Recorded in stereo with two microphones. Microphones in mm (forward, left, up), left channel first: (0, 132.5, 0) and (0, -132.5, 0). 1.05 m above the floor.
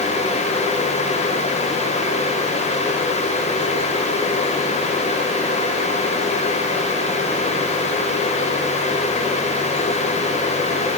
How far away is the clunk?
No clunk in this recording.